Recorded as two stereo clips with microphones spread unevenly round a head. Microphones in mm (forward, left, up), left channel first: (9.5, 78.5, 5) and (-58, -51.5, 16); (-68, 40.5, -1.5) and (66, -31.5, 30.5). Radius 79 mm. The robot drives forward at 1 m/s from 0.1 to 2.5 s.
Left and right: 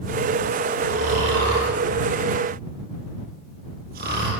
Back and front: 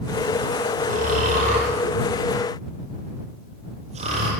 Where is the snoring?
70° right, 9 m; by 4.3 s 80° right, 8.5 m.